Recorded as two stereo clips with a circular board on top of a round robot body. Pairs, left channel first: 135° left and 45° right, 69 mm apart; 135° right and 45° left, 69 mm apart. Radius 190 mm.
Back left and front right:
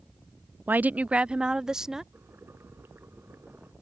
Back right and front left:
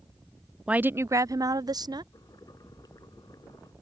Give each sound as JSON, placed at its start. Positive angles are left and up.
{"t": 0.7, "sound": "a woman speaking", "azimuth_deg": -15}
{"t": 2.1, "sound": "boiling", "azimuth_deg": -105}